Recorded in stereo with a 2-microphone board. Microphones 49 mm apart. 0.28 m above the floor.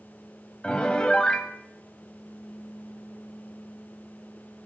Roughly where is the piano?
Centre.